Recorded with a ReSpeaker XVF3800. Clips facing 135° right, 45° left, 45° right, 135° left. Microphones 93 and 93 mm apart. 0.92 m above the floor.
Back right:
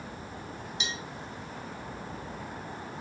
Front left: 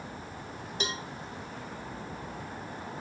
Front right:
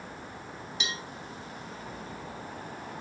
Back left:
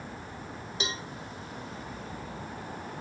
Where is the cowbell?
85° left, 0.8 m.